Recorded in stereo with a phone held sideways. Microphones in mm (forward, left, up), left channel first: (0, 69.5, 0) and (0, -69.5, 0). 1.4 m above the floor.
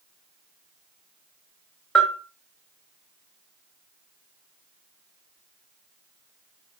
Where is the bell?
5° left (ahead or behind), 0.8 m.